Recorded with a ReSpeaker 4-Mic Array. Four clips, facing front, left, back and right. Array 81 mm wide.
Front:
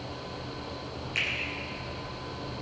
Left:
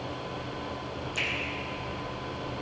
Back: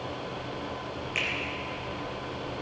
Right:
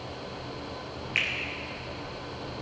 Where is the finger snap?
90° right, 4 m.